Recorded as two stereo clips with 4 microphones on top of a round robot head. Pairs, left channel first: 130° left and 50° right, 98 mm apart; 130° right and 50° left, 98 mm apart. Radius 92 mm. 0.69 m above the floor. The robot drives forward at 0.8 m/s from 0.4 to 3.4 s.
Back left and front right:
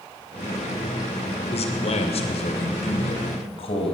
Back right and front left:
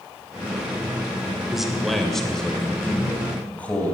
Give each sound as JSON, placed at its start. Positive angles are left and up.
{"t": 1.5, "sound": "a man speaking", "azimuth_deg": 135, "distance_m": 2.5}